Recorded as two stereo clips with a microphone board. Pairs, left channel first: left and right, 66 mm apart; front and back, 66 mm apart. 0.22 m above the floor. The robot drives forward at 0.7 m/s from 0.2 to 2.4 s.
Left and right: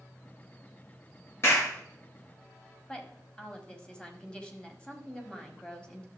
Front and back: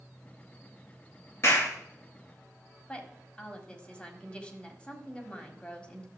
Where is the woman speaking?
45° left, 1.5 m.